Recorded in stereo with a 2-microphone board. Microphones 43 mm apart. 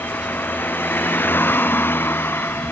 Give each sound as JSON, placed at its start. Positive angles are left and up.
{"t": 0.0, "sound": "a vehicle", "side_deg": 50}